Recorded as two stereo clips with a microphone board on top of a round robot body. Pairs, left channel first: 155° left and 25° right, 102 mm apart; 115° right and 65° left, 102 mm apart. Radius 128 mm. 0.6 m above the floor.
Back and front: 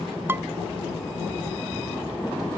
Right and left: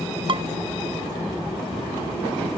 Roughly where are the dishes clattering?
Ahead left.